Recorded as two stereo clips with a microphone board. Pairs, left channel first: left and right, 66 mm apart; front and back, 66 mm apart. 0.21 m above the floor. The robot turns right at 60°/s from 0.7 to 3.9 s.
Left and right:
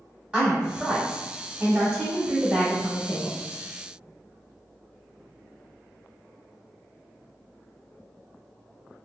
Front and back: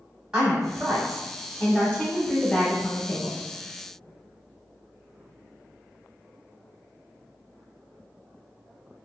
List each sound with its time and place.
0.3 s a woman speaking: 130° right, 1.3 m; by 3.4 s 30° left, 1.3 m